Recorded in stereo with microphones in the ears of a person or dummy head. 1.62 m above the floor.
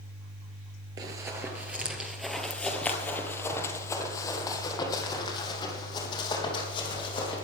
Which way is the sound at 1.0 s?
15° right (ahead or behind).